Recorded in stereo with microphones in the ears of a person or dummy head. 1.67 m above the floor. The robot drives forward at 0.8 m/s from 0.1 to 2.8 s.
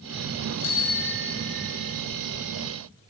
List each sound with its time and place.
0.6 s a bicycle bell: 70° left (ahead or behind), 2.5 m; by 1.9 s 50° left (ahead or behind), 3 m